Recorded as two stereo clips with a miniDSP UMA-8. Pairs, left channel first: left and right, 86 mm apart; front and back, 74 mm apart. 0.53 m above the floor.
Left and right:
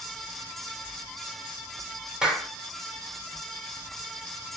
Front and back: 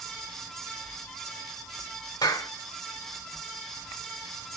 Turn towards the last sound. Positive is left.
turn(degrees=-10)